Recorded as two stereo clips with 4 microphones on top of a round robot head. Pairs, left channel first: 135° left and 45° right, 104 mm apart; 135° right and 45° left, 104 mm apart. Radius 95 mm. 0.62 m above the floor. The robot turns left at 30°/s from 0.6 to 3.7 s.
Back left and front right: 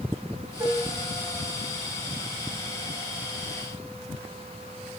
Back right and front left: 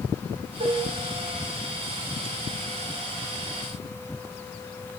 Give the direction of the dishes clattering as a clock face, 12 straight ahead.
11 o'clock.